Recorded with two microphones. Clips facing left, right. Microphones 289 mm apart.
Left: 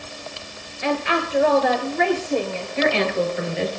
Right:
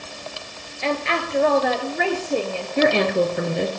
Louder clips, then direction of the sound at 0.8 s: Left 2 dB; 15° left (ahead or behind).